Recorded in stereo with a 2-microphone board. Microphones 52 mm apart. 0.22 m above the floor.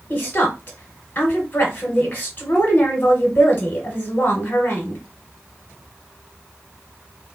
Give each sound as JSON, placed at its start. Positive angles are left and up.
{"t": 0.1, "sound": "a woman speaking", "side_deg": 40, "distance_m": 1.2}